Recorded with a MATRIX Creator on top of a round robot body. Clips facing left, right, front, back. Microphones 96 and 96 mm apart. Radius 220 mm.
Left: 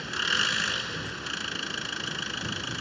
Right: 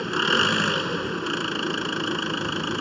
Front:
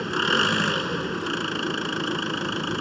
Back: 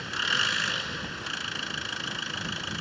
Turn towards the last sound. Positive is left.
turn(degrees=-50)